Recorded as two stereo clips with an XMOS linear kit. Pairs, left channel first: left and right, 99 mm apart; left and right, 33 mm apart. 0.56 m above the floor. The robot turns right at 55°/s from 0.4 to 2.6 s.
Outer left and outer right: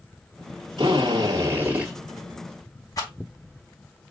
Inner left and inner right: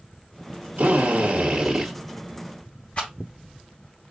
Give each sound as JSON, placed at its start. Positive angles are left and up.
{"t": 0.8, "sound": "a drill", "azimuth_deg": -75, "distance_m": 2.0}
{"t": 3.0, "sound": "a rattle", "side_deg": 35, "distance_m": 1.9}